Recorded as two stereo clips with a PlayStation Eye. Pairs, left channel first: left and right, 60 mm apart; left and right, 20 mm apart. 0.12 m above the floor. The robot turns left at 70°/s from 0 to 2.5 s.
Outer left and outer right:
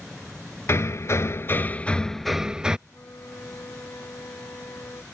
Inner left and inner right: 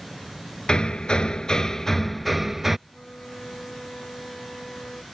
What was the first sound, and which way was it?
Hammering, 110° left.